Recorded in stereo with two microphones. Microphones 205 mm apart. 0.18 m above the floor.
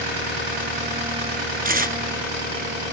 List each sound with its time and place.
1.6 s tearing paper: 45° right (ahead or behind), 1.1 m